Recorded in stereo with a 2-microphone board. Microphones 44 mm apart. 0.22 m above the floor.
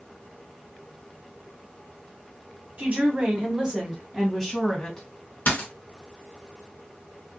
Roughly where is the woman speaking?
Right.